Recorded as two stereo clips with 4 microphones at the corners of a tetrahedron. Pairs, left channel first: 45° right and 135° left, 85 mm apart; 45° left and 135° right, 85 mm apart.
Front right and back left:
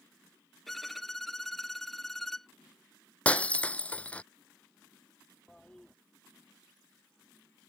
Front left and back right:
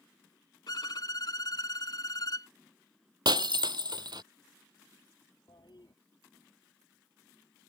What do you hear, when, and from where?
0.7 s a violin: 45° left
3.2 s breaking glass: 115° right
5.5 s a toilet flushing: 40° left